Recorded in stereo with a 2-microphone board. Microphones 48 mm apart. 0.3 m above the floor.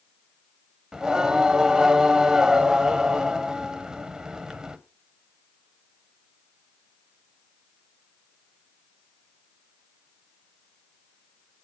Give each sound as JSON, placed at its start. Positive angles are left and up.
{"t": 0.9, "sound": "singing", "side_deg": -15, "distance_m": 0.9}